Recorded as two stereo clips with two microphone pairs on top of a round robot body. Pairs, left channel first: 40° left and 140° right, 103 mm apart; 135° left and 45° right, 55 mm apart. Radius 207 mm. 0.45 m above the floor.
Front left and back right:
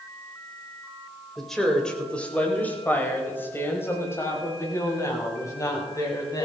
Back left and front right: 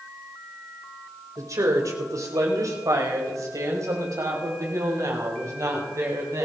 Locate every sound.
1.4 s a woman speaking: 50° right, 3.5 m; by 6.5 s 15° right, 6.5 m